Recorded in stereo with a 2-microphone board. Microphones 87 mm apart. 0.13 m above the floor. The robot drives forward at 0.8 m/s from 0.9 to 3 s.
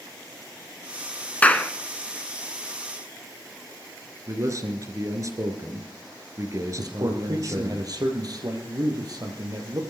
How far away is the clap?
About 0.9 m.